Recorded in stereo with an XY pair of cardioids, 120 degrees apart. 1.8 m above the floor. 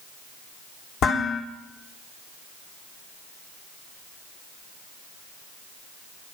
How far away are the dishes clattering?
About 3.5 m.